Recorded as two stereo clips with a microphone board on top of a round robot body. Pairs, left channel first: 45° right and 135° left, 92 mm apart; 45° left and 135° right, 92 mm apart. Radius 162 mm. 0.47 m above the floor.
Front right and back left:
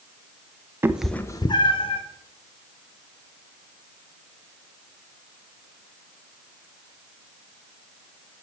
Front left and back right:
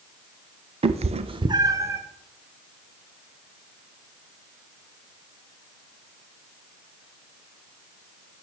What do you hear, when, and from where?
0.8 s a cat meowing: 160° right, 0.5 m; by 2.0 s 70° right, 1.1 m